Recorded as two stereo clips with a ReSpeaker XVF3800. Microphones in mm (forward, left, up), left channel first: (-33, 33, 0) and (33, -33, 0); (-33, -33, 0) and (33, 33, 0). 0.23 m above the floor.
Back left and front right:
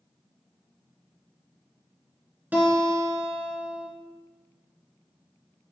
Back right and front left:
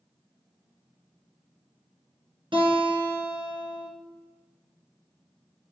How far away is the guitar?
About 2.5 m.